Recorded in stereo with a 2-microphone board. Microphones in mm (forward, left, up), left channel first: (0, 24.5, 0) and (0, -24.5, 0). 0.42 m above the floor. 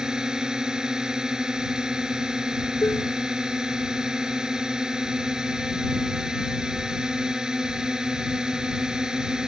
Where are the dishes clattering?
65° left (ahead or behind).